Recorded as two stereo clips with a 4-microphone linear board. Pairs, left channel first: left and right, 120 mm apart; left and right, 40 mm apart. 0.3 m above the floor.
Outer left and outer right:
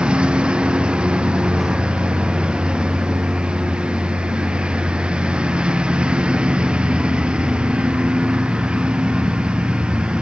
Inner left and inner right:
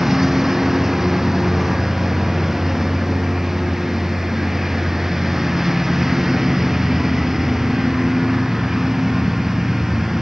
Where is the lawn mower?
10° right (ahead or behind).